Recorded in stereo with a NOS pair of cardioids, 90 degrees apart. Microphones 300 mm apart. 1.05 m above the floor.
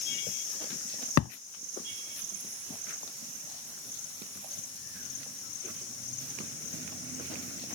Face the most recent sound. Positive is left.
turn(degrees=65)